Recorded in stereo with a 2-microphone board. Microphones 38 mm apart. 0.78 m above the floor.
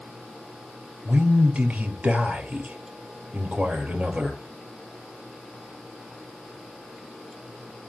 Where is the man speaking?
40° right (ahead or behind), 3 m.